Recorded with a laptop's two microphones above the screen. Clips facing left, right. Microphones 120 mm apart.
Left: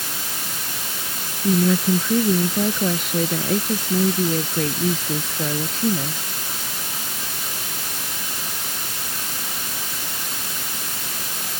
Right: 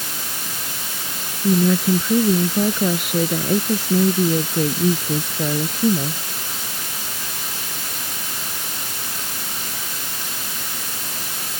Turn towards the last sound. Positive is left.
turn(degrees=-15)  # may be behind; listen again after turning